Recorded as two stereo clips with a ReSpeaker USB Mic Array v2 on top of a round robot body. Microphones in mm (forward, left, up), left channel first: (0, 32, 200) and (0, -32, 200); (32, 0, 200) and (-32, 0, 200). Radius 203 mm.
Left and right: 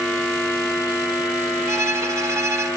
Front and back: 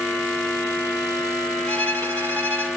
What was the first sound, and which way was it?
A violin, 55° right.